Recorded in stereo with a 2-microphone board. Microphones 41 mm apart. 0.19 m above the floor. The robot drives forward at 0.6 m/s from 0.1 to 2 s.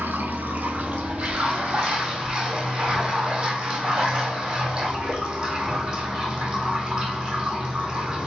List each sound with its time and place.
0.0 s running water: 55° right (ahead or behind), 0.7 m; by 8.3 s 20° right (ahead or behind), 1.7 m